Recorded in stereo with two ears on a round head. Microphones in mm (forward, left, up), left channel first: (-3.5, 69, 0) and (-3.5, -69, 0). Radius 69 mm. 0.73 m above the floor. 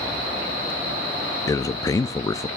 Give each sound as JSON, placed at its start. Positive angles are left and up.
{"t": 1.5, "sound": "a man speaking", "side_deg": 20, "distance_m": 0.5}